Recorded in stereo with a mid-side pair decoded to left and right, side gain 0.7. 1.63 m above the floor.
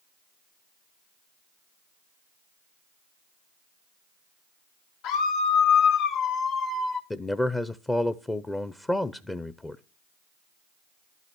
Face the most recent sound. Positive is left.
turn(degrees=15)